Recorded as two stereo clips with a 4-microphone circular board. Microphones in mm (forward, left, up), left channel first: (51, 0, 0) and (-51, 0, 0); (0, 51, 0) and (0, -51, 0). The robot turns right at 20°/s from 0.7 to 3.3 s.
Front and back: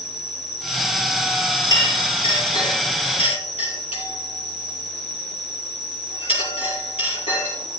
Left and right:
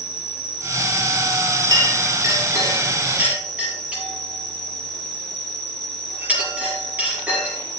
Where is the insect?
45° left, 3 m; by 7.8 s 95° left, 3 m.